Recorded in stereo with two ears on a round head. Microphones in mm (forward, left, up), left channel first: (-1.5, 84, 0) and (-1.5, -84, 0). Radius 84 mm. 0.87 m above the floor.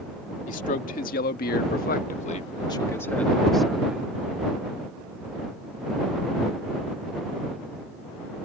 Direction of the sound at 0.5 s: 45° left (ahead or behind).